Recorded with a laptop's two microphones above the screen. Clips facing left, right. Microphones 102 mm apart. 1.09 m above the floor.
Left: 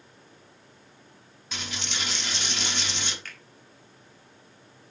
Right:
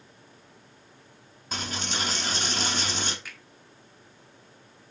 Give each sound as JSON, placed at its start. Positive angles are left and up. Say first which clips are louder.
{"t": 1.5, "sound": "a dropped coin", "louder": "right 4 dB", "side_deg": -40, "distance_m": 0.9}
{"t": 3.2, "sound": "a finger snap", "louder": "even", "side_deg": -10, "distance_m": 1.8}